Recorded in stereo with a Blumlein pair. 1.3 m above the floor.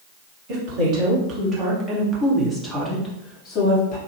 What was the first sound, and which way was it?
A woman speaking, 40° right.